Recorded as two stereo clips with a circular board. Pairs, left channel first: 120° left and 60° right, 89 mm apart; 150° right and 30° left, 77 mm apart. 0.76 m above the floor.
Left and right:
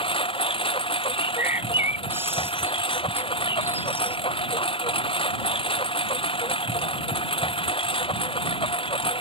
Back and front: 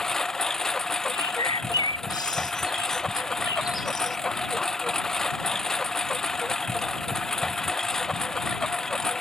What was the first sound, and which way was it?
A lawn mower, 125° left.